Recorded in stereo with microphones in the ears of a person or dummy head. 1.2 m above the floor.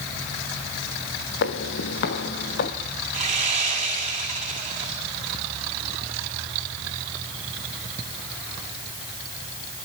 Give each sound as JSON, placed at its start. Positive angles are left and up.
{"t": 1.4, "sound": "footsteps", "side_deg": 65, "distance_m": 2.5}
{"t": 3.1, "sound": "sawing", "side_deg": -35, "distance_m": 9.0}